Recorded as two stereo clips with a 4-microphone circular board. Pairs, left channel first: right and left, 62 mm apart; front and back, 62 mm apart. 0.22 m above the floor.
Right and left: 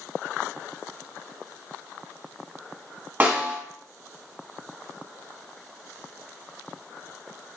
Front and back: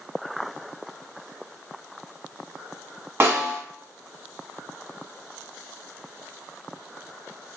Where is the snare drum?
145° left, 1.0 m.